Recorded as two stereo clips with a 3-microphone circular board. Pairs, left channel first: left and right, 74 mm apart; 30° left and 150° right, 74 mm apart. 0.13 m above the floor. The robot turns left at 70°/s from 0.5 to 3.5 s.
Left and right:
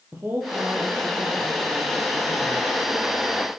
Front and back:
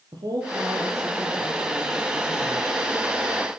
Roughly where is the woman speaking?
Behind right.